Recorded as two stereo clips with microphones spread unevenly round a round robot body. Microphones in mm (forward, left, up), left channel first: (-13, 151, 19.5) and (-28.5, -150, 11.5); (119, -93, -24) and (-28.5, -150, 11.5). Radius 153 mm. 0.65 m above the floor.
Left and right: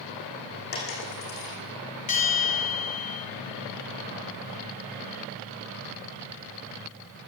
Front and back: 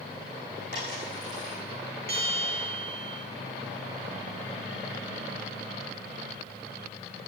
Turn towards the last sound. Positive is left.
turn(degrees=155)